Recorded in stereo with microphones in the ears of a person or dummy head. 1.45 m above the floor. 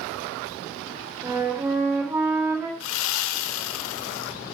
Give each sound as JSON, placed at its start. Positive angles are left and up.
{"t": 1.2, "sound": "a flute", "side_deg": -20, "distance_m": 4.0}
{"t": 2.8, "sound": "sawing", "side_deg": 80, "distance_m": 0.7}